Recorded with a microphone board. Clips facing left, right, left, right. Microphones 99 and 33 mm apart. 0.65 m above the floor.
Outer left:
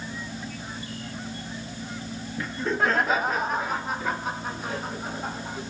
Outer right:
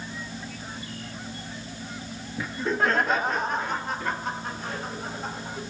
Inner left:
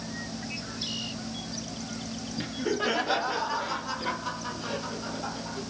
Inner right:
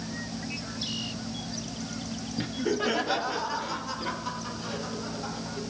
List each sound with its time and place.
2.4 s laughter: 5° right (ahead or behind), 0.5 m; by 5.6 s 5° left (ahead or behind), 3.5 m